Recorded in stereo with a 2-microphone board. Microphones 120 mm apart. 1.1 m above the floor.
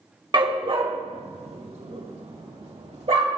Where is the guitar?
No guitar in this recording.